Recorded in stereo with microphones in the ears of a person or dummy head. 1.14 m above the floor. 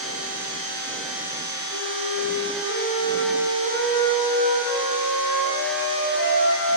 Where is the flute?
50° left (ahead or behind), 3 m.